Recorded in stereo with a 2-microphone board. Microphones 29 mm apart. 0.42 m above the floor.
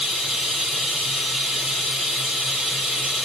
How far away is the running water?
About 1.8 m.